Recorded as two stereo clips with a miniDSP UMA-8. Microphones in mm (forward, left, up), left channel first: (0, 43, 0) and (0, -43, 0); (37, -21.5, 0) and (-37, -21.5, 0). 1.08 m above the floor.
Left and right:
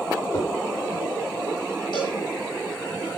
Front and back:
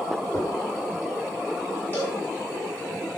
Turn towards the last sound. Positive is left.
turn(degrees=65)